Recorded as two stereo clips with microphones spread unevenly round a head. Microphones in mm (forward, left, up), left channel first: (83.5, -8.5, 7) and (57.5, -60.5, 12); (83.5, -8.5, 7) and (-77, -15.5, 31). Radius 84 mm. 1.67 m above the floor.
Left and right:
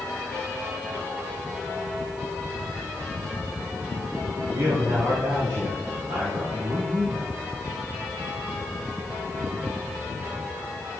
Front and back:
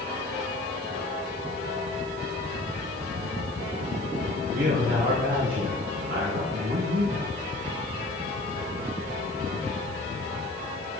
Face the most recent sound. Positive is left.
turn(degrees=-145)